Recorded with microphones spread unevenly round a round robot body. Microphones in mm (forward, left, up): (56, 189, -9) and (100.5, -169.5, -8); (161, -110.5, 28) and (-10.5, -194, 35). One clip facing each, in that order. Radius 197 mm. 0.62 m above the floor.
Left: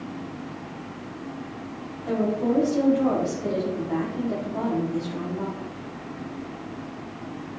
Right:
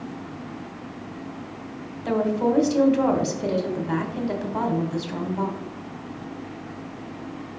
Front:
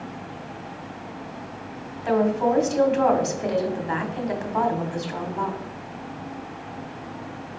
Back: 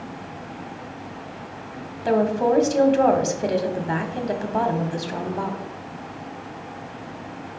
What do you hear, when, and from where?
2.0 s a woman speaking: 100° right, 1.8 m